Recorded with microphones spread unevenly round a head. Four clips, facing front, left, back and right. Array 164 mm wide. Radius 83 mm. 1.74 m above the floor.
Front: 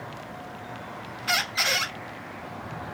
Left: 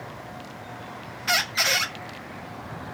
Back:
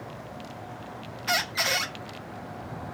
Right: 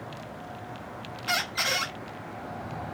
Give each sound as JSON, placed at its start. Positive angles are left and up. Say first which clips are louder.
{"t": 1.3, "sound": "a squeak", "louder": "left 4 dB, even", "azimuth_deg": 165, "distance_m": 0.9}